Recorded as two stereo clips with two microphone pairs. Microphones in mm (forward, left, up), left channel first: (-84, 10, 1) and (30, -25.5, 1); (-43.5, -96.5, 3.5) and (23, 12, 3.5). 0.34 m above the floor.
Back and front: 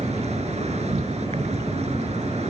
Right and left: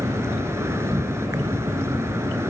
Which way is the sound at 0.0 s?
10° right.